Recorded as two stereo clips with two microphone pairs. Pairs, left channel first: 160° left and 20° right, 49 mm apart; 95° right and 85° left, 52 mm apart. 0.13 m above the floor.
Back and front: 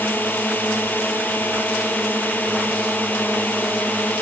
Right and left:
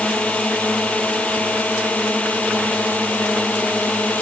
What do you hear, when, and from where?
0.0 s a drone: 155° right; by 4.2 s 150° right